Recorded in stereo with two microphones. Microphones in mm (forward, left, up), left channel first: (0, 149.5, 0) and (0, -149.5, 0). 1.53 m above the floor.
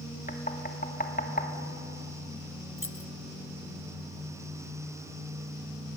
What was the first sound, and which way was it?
Knocking, 30° left (ahead or behind).